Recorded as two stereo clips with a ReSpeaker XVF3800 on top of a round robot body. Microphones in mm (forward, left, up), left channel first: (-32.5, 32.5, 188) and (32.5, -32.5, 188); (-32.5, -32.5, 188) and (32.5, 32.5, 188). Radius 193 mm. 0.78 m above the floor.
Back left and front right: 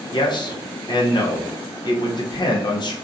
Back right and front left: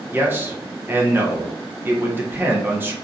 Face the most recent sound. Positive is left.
turn(degrees=110)